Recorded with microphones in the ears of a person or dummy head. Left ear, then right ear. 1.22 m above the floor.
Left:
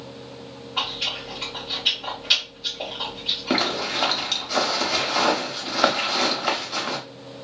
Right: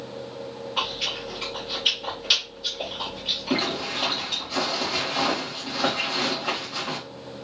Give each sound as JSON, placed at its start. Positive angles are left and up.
{"t": 0.8, "sound": "chewing", "side_deg": -10, "distance_m": 1.1}
{"t": 3.5, "sound": "a zipper", "side_deg": 60, "distance_m": 1.1}